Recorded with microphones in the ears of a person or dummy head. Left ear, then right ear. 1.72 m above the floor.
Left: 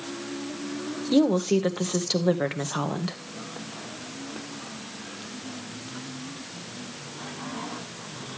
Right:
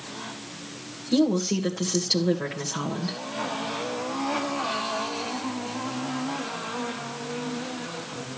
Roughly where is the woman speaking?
Left.